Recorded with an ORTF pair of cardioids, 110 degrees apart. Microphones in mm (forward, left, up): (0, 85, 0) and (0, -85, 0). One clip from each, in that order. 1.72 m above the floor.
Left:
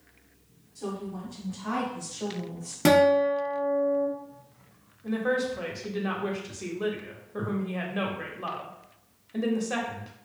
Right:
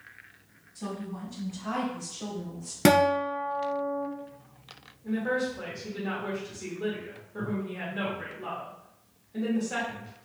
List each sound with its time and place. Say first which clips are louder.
0.8 s a woman speaking: left 2 dB; 15° right, 1.4 m; by 2.8 s 30° left, 1.2 m
2.9 s a guitar: left 2 dB; 20° right, 0.6 m
5.0 s a woman speaking: left 2 dB; 35° left, 0.9 m